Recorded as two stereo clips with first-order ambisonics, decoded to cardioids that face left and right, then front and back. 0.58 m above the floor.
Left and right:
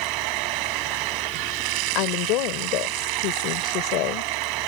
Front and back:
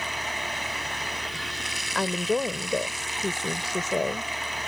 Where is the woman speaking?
80° left.